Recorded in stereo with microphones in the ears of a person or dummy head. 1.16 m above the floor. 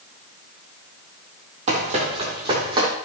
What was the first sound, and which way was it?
Running footsteps, 45° right (ahead or behind).